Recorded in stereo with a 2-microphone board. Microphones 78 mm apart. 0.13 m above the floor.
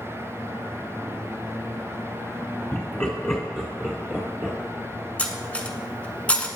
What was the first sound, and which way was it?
Laughter, 20° left (ahead or behind).